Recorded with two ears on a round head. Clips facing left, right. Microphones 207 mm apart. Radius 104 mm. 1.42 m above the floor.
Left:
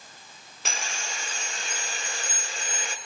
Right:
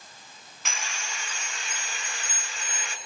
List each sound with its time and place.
0.7 s sawing: 35° left (ahead or behind), 1.4 m